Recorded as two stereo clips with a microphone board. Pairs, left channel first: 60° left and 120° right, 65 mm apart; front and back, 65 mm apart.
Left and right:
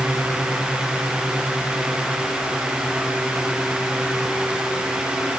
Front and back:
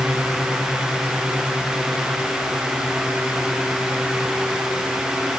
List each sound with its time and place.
Only background noise.